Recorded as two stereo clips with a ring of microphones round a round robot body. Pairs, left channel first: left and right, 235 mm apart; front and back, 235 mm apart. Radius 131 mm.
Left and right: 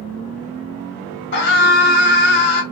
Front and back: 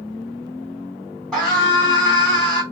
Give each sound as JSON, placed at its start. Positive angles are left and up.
{"t": 1.3, "sound": "a scream", "azimuth_deg": 90, "distance_m": 2.0}